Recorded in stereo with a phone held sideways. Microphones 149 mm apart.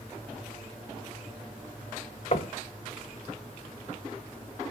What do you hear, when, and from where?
2.3 s knocking: 50° left (ahead or behind), 0.7 m